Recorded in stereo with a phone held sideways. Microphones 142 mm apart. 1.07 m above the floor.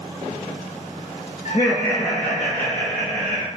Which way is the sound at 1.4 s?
65° left (ahead or behind).